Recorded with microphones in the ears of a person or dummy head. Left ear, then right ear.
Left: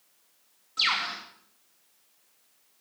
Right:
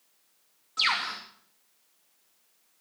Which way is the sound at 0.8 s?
15° right (ahead or behind).